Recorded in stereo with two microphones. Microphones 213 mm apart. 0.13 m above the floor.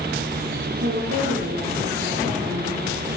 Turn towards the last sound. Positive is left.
turn(degrees=-75)  # may be behind; listen again after turning